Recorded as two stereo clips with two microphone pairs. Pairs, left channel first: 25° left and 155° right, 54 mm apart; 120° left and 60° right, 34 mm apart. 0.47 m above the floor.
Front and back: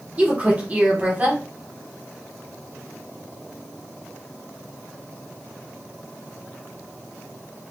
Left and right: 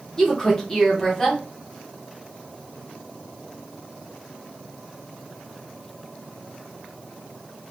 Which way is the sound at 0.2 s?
175° left.